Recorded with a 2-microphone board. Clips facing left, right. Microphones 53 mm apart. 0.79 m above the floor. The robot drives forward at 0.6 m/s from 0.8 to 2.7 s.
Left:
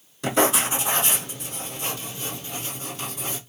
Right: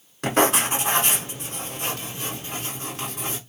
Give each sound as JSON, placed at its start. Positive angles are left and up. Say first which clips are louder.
{"t": 0.2, "sound": "writing", "louder": "right 1 dB", "side_deg": -60, "distance_m": 2.0}